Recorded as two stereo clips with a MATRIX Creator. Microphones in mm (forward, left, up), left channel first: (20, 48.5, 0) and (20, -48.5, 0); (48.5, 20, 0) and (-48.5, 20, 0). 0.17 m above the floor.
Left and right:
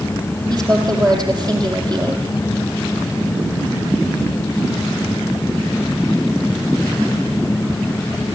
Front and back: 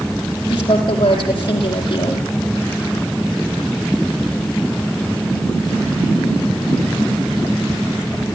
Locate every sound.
0.5 s a woman speaking: 40° right, 6 m